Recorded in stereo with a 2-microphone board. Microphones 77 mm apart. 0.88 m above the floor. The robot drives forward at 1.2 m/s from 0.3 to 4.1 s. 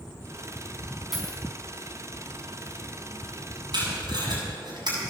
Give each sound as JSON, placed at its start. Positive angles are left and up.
{"t": 1.1, "sound": "a dropped coin", "side_deg": -5, "distance_m": 4.5}
{"t": 3.7, "sound": "tape being pulled", "side_deg": -70, "distance_m": 7.0}